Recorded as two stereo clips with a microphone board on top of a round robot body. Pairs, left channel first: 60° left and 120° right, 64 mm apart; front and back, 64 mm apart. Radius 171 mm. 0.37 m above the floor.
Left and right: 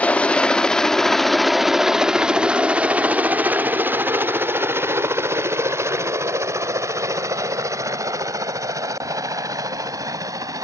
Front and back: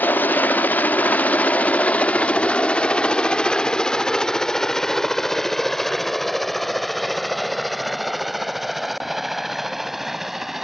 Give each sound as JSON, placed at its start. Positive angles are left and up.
{"t": 0.0, "sound": "a helicopter", "azimuth_deg": 15}